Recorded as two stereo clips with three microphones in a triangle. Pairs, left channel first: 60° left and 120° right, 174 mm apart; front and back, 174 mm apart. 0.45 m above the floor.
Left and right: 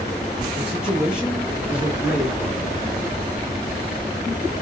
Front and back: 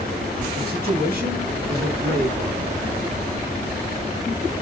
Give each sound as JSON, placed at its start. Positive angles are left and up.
{"t": 0.6, "sound": "a man speaking", "azimuth_deg": 155, "distance_m": 7.0}